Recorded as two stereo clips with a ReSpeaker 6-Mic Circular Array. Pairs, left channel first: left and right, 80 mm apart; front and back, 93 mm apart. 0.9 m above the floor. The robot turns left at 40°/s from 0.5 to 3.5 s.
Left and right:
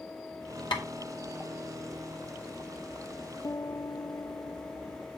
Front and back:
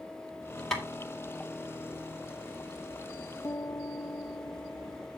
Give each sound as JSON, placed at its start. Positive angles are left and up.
{"t": 0.7, "sound": "tapping", "azimuth_deg": 85, "distance_m": 2.5}
{"t": 3.4, "sound": "a piano", "azimuth_deg": 50, "distance_m": 0.5}